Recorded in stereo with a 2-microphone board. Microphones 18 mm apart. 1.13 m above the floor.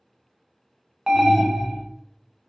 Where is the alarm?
30° right (ahead or behind), 0.5 m.